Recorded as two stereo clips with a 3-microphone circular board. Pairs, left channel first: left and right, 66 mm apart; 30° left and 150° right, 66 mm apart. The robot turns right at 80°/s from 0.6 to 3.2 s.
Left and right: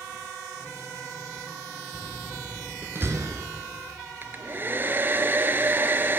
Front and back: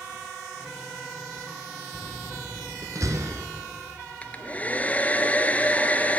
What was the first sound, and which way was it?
A door slam, 140° left.